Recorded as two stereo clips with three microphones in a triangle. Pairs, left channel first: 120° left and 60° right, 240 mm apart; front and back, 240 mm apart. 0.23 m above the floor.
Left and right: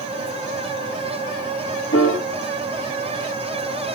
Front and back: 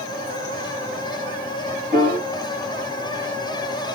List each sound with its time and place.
1.9 s a piano: 125° left, 4.5 m